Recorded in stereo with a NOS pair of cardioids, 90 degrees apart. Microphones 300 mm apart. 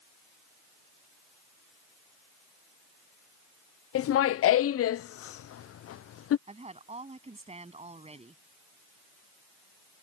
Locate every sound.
4.0 s laughter: 50° left
6.5 s a woman speaking: 20° right